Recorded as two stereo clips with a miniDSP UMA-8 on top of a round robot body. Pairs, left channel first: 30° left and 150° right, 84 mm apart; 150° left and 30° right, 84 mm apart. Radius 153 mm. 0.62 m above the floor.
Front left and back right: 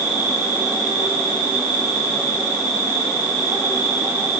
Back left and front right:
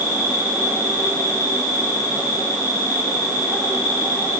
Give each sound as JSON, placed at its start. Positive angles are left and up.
{"t": 0.0, "sound": "an insect", "azimuth_deg": -95, "distance_m": 4.5}